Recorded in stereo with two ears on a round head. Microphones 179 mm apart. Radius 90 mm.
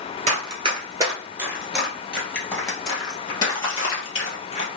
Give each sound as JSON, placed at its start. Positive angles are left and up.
{"t": 0.3, "sound": "running footsteps", "side_deg": -30, "distance_m": 1.3}